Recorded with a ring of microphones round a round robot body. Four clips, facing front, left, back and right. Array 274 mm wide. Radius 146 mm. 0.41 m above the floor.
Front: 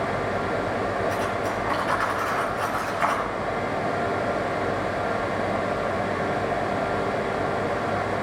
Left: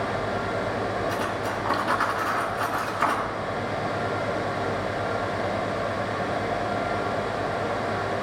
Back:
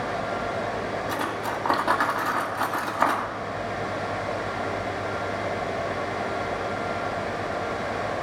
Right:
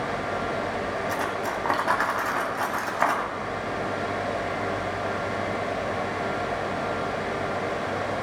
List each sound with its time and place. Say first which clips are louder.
1.1 s cutlery clinking: even, front 2 dB; 145° right, 1.9 m